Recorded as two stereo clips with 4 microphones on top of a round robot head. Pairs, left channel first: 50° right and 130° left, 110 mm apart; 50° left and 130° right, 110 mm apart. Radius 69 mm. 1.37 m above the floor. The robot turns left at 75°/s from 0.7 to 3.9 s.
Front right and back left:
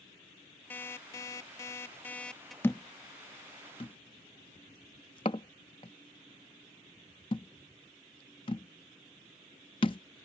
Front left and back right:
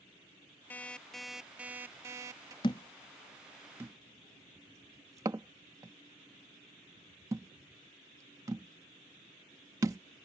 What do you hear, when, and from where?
0.7 s an alarm clock: straight ahead; by 2.5 s 140° right
2.6 s a thud: 15° left; by 10.0 s 80° right